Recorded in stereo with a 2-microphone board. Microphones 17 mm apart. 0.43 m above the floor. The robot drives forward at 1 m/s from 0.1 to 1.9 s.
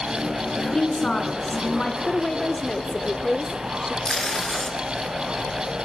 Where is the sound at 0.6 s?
40° left (ahead or behind), 5.5 m; by 1.9 s 50° left (ahead or behind), 4.5 m.